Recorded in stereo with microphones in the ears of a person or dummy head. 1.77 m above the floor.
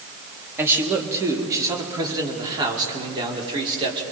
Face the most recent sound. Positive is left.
turn(degrees=-25)  # may be behind; listen again after turning